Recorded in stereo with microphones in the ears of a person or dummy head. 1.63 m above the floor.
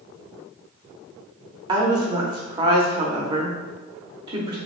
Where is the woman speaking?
25° right (ahead or behind), 0.7 m.